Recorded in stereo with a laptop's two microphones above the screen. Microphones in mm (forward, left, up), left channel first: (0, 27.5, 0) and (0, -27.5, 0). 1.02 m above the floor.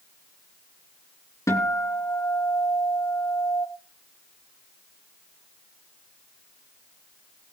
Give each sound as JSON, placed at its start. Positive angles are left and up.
{"t": 1.5, "sound": "a guitar", "side_deg": 75, "distance_m": 3.0}